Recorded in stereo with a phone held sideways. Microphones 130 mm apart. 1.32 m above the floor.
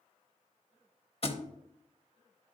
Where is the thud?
45° left (ahead or behind), 1.0 m.